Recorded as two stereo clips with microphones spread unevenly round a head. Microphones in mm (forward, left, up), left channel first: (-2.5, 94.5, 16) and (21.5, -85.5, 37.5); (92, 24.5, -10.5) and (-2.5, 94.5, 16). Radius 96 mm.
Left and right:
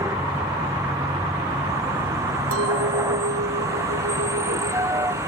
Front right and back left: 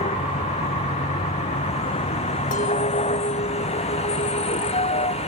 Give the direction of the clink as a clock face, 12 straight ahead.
3 o'clock.